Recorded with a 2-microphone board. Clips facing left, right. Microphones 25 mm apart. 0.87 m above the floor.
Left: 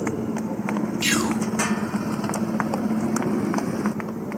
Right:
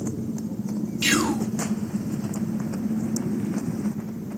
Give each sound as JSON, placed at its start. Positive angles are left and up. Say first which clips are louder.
{"t": 0.0, "sound": "a motorcycle", "louder": "left 4 dB", "side_deg": 70}
{"t": 1.0, "sound": "whispering", "louder": "right 2 dB", "side_deg": -5}